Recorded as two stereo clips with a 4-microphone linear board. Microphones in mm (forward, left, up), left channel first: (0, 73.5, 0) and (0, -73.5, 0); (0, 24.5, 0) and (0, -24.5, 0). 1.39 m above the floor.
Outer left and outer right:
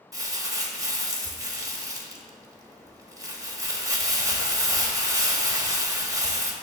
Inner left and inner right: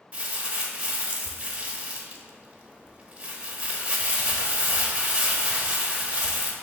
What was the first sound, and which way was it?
Crumpling, 25° right (ahead or behind).